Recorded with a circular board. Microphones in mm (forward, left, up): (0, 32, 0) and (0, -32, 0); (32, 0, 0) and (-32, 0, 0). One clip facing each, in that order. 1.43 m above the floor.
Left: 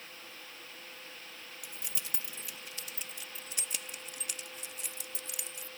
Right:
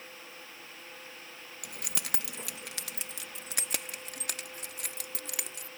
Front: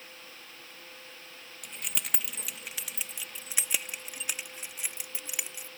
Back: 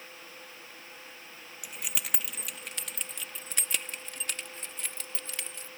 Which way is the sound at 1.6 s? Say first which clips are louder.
Right 7 dB, even; 95° right.